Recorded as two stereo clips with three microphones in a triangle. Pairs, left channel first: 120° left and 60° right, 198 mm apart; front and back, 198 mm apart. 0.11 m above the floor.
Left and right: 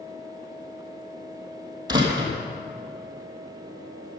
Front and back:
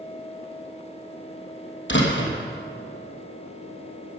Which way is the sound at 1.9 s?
5° left.